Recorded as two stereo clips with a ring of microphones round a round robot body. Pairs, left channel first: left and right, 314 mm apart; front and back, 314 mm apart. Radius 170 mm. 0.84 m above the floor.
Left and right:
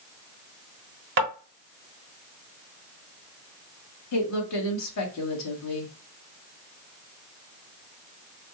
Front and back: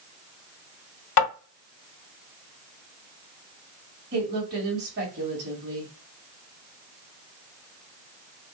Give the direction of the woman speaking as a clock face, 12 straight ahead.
8 o'clock.